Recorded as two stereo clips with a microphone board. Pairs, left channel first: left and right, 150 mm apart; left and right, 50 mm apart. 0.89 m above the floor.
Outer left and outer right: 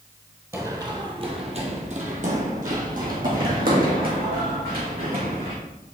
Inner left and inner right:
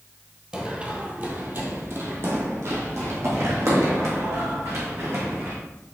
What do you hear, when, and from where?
0.5 s running footsteps: 20° right (ahead or behind), 1.4 m; by 5.5 s 75° right (ahead or behind), 4 m